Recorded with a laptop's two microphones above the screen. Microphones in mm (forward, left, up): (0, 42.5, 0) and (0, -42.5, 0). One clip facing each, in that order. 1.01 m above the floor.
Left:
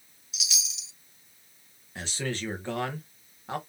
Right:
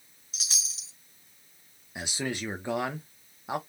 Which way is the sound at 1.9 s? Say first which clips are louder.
Even; 15° right (ahead or behind).